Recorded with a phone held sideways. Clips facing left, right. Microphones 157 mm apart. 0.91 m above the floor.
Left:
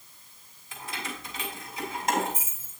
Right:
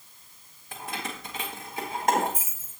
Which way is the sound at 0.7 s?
55° right (ahead or behind).